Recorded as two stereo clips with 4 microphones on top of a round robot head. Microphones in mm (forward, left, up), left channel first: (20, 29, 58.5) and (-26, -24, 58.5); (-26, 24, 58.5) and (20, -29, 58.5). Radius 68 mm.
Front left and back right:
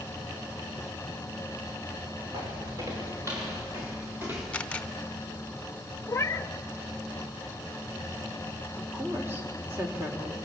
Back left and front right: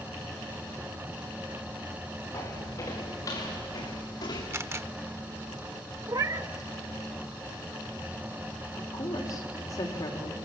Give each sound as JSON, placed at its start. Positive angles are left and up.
{"t": 2.3, "sound": "footsteps", "azimuth_deg": -175, "distance_m": 5.5}
{"t": 4.5, "sound": "a camera shutter", "azimuth_deg": -20, "distance_m": 1.0}
{"t": 6.1, "sound": "a cat meowing", "azimuth_deg": -10, "distance_m": 0.8}
{"t": 8.8, "sound": "a woman speaking", "azimuth_deg": 165, "distance_m": 3.5}